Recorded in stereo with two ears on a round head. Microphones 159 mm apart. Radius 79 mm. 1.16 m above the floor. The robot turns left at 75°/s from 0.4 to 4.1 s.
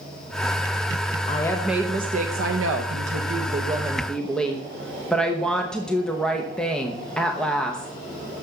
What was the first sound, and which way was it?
A woman speaking, 30° left.